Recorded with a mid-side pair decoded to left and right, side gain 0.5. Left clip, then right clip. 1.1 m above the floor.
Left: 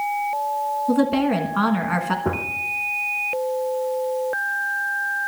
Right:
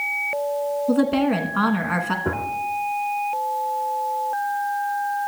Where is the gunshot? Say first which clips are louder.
Left 1 dB; 15° left, 0.9 m.